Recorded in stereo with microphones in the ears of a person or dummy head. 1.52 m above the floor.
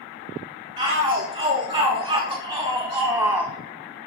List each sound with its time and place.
0.8 s a shout: 25° right (ahead or behind), 3.5 m; by 3.5 s 10° right (ahead or behind), 1.0 m